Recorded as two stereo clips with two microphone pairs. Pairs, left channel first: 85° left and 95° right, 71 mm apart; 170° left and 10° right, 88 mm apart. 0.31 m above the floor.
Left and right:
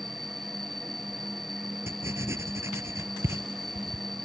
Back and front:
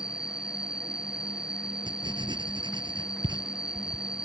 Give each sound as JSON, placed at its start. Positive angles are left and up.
{"t": 0.0, "sound": "an insect", "azimuth_deg": -90}
{"t": 1.9, "sound": "writing", "azimuth_deg": -40}